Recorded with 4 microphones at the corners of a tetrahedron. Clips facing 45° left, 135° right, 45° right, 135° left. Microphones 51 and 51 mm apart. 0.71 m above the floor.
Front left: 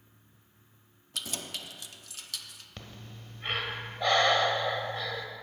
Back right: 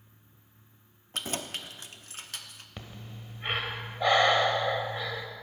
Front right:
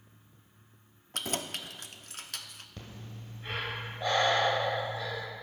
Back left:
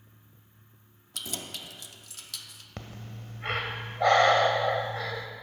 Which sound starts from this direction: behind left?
Breathing, at 2.8 s.